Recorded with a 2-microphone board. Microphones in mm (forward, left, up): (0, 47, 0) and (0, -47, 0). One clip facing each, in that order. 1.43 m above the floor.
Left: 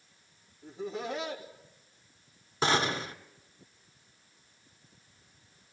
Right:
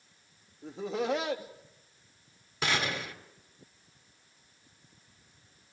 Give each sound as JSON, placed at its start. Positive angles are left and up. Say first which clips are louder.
{"t": 0.6, "sound": "laughter", "louder": "right 4 dB", "side_deg": -85, "distance_m": 3.0}
{"t": 2.6, "sound": "a gunshot", "louder": "left 4 dB", "side_deg": 30, "distance_m": 2.5}